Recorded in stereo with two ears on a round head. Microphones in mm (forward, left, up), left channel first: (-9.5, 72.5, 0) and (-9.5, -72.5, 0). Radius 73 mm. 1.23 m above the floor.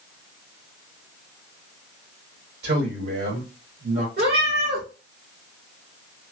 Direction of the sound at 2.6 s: 75° right (ahead or behind).